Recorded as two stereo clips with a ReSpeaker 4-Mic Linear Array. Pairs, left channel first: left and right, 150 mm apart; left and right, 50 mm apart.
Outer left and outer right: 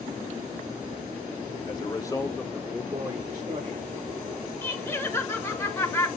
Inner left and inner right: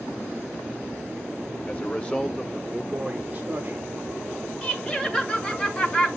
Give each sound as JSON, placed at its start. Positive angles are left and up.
{"t": 1.7, "sound": "a man speaking", "side_deg": 30, "distance_m": 1.1}
{"t": 4.6, "sound": "laughter", "side_deg": 15, "distance_m": 1.7}